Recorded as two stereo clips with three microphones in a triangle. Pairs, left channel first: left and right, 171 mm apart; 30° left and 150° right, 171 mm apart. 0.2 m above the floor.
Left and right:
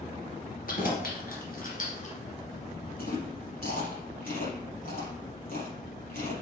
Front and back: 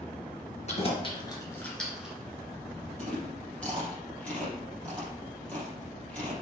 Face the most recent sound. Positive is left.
turn(degrees=115)